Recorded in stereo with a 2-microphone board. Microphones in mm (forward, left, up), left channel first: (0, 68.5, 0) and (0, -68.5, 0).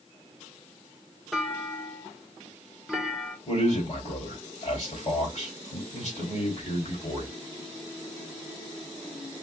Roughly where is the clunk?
Centre.